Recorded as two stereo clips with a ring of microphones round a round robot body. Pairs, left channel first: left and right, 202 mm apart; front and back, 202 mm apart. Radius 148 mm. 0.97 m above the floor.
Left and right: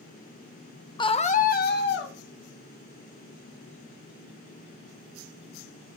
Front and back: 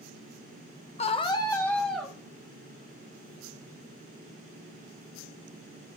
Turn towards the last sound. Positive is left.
turn(degrees=90)